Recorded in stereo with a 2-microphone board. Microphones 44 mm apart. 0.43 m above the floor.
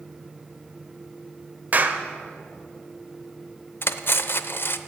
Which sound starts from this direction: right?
A clap, at 1.7 s.